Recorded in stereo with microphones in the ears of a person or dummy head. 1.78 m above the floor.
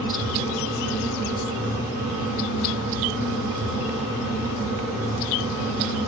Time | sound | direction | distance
0.0 | a fan | 55° right (ahead or behind) | 0.9 m